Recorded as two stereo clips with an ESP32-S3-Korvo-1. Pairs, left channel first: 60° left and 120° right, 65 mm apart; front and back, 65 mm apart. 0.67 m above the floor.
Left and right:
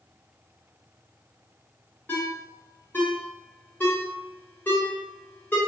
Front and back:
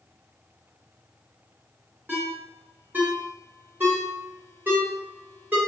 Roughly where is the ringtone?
Behind left.